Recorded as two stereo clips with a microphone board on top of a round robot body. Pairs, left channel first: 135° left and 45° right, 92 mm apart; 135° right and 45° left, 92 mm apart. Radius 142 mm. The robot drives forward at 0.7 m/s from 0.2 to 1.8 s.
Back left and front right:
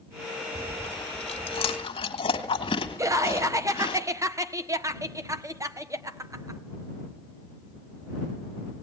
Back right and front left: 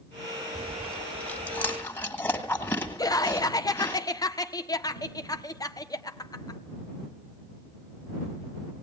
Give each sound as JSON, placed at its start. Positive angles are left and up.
{"t": 0.6, "sound": "chewing", "azimuth_deg": 135, "distance_m": 1.0}
{"t": 3.0, "sound": "laughter", "azimuth_deg": -95, "distance_m": 1.2}